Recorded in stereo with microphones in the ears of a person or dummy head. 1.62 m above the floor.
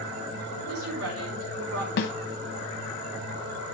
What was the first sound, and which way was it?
A woman speaking, 85° right.